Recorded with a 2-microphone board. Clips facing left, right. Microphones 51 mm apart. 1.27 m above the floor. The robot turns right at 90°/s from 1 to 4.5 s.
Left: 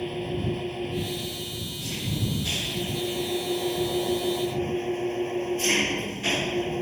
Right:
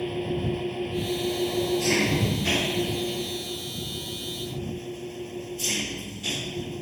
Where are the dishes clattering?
No dishes clattering in this recording.